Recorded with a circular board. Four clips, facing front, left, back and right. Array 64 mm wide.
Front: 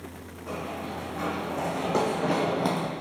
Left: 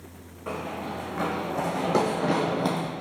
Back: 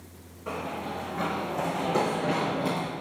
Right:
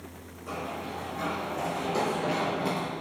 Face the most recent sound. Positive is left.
turn(degrees=40)